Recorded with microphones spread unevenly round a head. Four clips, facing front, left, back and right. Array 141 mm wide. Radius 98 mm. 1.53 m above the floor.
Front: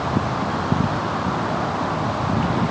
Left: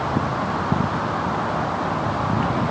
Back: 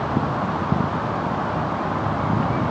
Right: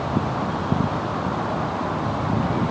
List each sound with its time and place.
Only background noise.